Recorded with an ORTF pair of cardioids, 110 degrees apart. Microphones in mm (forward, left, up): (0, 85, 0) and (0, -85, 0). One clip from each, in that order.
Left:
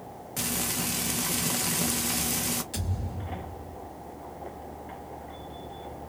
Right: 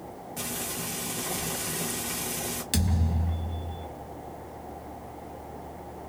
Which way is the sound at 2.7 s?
70° right.